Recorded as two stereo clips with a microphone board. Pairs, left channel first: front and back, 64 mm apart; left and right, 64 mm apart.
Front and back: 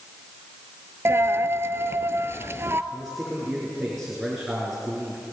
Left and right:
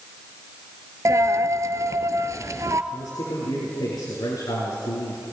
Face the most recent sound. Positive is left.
turn(degrees=90)